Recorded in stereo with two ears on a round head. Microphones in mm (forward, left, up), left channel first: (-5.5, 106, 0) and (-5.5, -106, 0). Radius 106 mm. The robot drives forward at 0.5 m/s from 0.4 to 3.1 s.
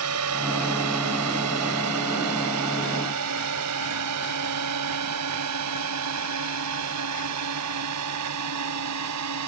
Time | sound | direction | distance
0.0 | a drone | 75° right (ahead or behind) | ?